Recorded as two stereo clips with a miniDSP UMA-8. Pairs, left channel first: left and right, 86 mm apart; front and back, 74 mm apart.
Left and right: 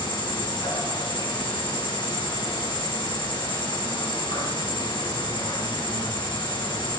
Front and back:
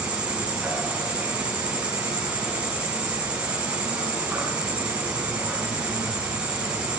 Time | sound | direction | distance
0.0 | an insect | 110° left | 5 m